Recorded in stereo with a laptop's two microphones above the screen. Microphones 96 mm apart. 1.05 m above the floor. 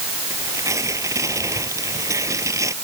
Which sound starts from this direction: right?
Tearing paper, at 0.3 s.